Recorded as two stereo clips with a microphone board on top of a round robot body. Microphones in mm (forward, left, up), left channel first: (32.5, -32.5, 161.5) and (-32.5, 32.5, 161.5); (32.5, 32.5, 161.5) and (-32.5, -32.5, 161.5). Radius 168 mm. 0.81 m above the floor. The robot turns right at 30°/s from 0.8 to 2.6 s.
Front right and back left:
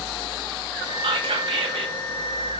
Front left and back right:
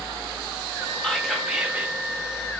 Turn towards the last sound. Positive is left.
turn(degrees=175)